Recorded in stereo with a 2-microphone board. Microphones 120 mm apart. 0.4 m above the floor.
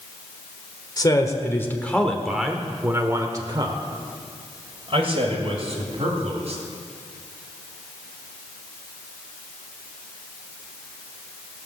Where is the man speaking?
35° left (ahead or behind), 1.2 m; by 6.6 s 65° right (ahead or behind), 2.5 m.